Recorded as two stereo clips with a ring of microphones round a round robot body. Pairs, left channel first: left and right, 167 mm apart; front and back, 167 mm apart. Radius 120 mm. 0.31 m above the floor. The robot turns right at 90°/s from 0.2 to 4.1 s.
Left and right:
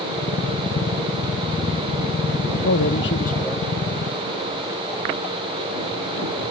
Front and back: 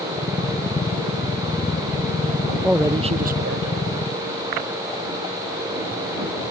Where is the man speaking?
90° left; by 3.7 s 170° right.